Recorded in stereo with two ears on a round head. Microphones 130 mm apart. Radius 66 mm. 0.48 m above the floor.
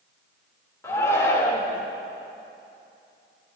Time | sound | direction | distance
0.8 | a shout | 20° left (ahead or behind) | 1.2 m